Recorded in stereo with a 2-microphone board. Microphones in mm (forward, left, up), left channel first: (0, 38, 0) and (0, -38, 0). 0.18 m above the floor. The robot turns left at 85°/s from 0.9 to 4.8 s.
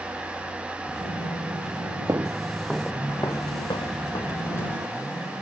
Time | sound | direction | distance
2.1 | footsteps | 45° right (ahead or behind) | ?